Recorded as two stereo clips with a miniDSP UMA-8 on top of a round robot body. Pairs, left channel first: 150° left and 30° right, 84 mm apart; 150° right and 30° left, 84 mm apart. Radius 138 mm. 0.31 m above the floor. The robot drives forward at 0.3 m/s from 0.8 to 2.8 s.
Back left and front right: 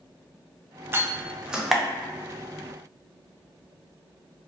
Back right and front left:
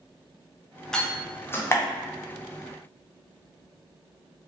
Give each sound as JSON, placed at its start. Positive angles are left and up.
{"t": 0.9, "sound": "a door slam", "azimuth_deg": -75, "distance_m": 0.6}